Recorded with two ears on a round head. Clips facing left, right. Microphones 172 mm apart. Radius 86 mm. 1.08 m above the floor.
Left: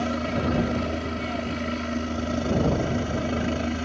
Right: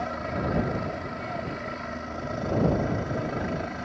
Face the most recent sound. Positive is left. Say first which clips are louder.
# left 5 dB
turn(degrees=40)  # may be behind; listen again after turning